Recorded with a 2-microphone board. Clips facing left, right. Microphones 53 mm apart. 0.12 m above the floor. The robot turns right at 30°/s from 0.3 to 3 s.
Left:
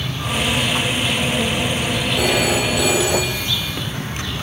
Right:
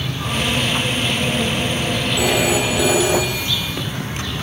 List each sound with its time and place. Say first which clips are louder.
2.2 s a phone ringing: right 1 dB; 15° right (ahead or behind), 3.5 m; by 3.7 s 40° right (ahead or behind), 3.5 m